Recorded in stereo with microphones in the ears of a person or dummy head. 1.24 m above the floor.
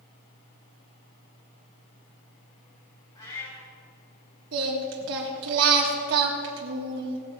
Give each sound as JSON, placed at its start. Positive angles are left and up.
{"t": 3.1, "sound": "a cat meowing", "side_deg": 25, "distance_m": 4.0}
{"t": 4.5, "sound": "singing", "side_deg": -65, "distance_m": 1.5}